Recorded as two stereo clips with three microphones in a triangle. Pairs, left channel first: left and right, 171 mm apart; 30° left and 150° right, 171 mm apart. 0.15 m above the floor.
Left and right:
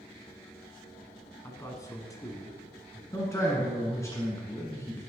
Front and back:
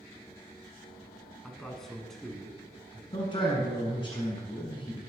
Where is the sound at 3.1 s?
35° left, 1.3 m.